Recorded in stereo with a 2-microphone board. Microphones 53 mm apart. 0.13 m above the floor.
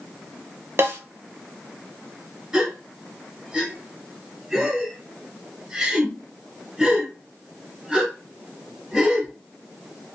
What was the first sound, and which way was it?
A snare drum, 50° right (ahead or behind).